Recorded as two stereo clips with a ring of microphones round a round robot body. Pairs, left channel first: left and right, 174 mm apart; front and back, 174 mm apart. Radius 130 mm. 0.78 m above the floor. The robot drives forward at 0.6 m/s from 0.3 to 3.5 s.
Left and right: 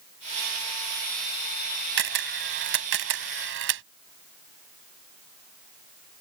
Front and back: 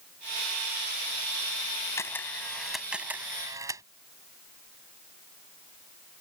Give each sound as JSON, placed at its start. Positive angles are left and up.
{"t": 2.0, "sound": "a camera shutter", "azimuth_deg": -80}